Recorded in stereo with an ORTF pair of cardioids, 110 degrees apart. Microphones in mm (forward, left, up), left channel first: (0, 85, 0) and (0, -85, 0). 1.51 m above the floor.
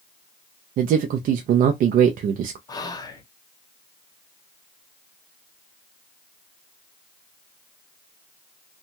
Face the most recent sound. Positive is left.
turn(degrees=20)